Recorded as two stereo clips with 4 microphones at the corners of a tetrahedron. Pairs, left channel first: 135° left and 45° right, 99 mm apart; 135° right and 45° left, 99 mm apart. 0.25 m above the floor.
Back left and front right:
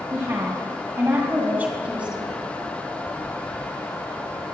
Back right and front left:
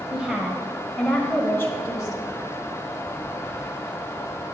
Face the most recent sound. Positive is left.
turn(degrees=-120)